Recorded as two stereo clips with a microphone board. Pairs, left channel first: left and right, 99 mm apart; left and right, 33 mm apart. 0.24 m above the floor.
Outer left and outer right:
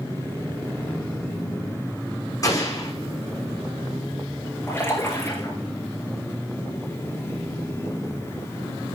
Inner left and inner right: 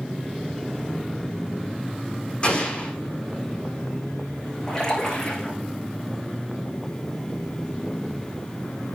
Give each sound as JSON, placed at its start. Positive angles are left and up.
{"t": 2.4, "sound": "an explosion", "side_deg": 30, "distance_m": 6.0}
{"t": 4.7, "sound": "a splash", "side_deg": 20, "distance_m": 6.5}